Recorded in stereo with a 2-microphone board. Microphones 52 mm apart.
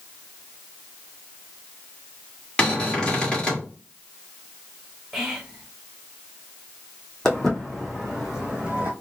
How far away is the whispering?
About 1.5 m.